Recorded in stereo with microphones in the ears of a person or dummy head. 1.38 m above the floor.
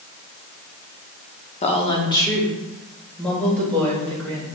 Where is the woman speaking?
30° left (ahead or behind), 0.7 m; by 4.5 s 5° left (ahead or behind), 2.5 m.